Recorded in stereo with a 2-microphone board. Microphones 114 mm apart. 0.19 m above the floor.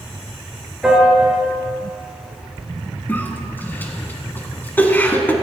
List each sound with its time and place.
0.8 s a piano: 5° right (ahead or behind), 3 m
3.1 s a cough: 15° left (ahead or behind), 1.7 m